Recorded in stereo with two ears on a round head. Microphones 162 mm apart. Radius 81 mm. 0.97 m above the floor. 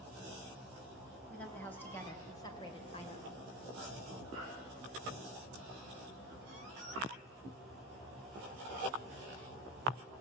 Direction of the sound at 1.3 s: 5° left (ahead or behind).